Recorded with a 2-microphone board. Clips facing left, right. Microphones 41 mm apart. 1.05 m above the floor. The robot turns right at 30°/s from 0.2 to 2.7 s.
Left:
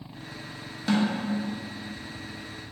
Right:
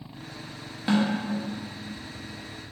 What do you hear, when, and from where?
0.9 s a snare drum: 15° right (ahead or behind), 0.8 m; by 1.2 s 10° right (ahead or behind), 0.8 m